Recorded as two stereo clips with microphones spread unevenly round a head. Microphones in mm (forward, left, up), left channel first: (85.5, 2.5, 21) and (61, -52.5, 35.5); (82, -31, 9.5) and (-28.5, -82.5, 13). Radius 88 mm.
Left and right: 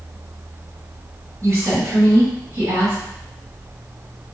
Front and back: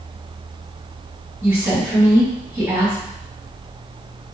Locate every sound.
1.4 s a woman speaking: 80° right, 1.8 m